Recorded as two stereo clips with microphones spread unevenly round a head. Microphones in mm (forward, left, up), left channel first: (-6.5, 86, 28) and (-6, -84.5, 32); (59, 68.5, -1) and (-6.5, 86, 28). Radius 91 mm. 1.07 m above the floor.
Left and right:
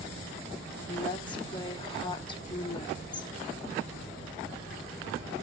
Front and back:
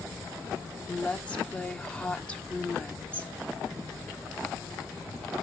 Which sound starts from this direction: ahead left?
A woman speaking, at 0.9 s.